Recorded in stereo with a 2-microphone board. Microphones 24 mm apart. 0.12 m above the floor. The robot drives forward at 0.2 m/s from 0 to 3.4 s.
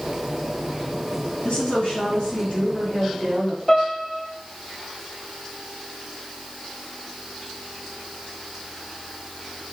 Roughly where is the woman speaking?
Left.